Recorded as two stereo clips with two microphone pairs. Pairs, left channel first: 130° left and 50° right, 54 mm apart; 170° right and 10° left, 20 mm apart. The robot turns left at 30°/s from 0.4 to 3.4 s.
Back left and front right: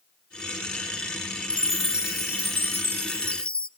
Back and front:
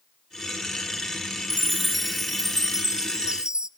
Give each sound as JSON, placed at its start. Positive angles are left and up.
{"t": 1.5, "sound": "a chime", "azimuth_deg": 120, "distance_m": 0.7}